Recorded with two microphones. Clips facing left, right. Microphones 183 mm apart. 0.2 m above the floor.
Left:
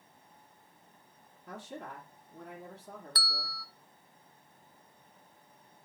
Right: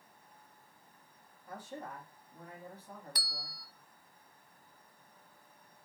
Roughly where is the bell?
Centre.